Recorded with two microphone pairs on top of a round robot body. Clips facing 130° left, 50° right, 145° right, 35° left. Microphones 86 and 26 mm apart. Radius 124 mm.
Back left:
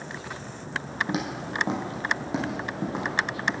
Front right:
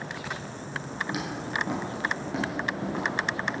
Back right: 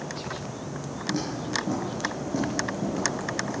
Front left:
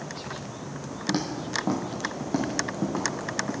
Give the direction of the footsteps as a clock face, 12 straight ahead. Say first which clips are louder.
Even, front left 1 dB; 10 o'clock.